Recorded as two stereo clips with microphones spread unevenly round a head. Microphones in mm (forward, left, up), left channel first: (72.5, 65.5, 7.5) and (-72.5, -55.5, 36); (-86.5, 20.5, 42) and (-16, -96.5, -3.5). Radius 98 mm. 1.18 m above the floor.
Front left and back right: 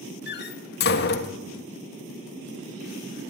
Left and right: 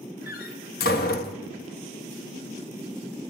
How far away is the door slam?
About 1.4 m.